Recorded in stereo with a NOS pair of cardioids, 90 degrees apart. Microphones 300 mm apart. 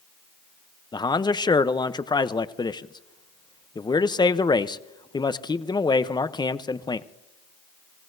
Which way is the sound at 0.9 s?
15° left.